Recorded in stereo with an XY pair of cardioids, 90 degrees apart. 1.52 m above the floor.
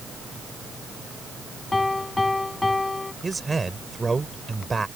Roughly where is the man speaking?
Ahead right.